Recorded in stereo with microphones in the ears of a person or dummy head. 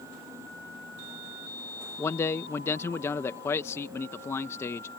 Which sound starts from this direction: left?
A man speaking, at 2.0 s.